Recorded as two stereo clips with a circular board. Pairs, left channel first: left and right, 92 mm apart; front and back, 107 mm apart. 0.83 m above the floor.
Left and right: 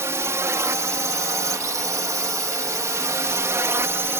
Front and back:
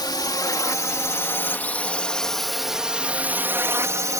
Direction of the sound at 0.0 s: 40° right.